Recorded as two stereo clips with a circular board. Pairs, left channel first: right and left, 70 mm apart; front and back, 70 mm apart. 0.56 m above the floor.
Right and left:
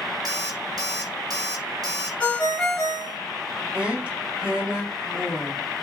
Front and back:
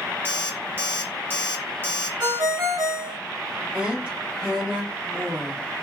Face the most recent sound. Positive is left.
turn(degrees=140)